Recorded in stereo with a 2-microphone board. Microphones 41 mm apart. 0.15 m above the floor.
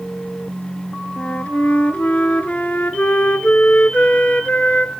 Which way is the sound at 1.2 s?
45° left (ahead or behind).